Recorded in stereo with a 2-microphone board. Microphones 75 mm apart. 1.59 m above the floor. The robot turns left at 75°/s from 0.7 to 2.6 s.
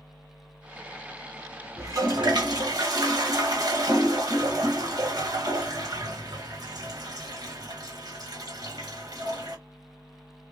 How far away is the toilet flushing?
About 1.1 m.